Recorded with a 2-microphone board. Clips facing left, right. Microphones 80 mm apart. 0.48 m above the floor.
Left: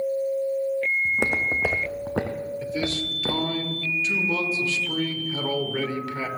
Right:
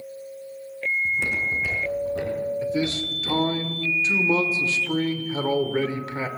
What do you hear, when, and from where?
1.1 s footsteps: 55° left (ahead or behind), 1.6 m; by 3.6 s 80° left, 2.5 m
2.6 s a man speaking: 25° right (ahead or behind), 1.3 m